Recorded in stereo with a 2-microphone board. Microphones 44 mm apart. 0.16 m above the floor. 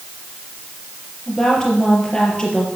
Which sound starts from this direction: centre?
A woman speaking, at 1.3 s.